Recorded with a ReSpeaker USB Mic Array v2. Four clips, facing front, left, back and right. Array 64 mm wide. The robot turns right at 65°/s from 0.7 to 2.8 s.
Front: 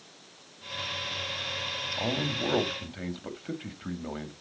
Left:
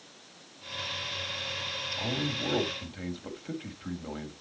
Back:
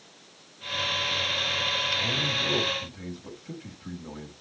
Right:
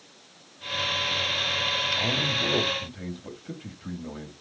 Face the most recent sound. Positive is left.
turn(degrees=15)